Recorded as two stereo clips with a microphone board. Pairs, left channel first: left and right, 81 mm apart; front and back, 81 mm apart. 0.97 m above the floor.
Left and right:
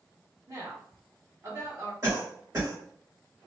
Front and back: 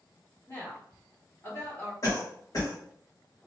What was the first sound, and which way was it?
A woman speaking, 50° right.